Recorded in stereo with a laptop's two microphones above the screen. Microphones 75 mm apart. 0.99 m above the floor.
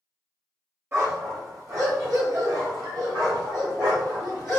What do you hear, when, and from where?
0.9 s a dog barking: 35° right (ahead or behind), 1.5 m; by 4.6 s 65° right (ahead or behind), 3 m